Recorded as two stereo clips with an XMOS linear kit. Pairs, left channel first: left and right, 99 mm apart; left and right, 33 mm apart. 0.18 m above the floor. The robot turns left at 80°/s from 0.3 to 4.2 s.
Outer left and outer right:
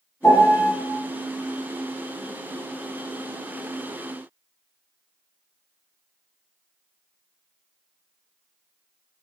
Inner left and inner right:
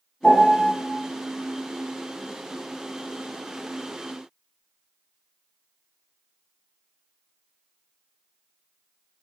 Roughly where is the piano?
Behind left.